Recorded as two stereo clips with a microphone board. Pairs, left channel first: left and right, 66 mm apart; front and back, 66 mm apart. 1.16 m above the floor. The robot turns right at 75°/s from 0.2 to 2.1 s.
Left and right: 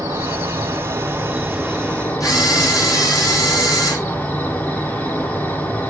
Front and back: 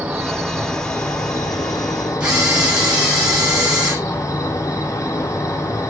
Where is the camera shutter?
105° left, 9 m.